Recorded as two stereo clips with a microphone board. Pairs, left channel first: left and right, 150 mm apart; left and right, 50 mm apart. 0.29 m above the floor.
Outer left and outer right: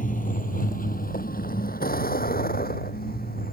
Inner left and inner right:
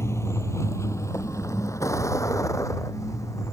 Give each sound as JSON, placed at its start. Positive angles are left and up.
{"t": 0.0, "sound": "a vehicle", "side_deg": 60}